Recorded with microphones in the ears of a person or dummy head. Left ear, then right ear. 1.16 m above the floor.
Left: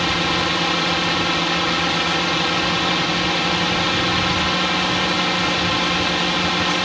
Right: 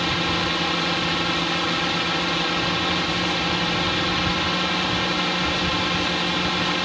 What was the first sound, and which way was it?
A drone, 5° left (ahead or behind).